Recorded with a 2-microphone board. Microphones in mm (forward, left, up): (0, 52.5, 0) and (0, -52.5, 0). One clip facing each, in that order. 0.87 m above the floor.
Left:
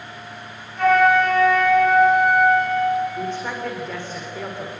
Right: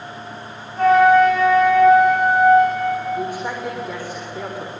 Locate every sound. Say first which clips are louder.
0.8 s a flute: right 4 dB; 35° right (ahead or behind), 9.5 m
3.1 s a man speaking: right 2 dB; 10° right (ahead or behind), 3.5 m